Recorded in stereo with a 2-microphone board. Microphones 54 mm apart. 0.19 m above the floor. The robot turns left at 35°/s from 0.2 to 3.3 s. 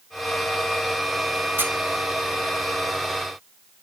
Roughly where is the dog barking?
I don't hear a dog barking.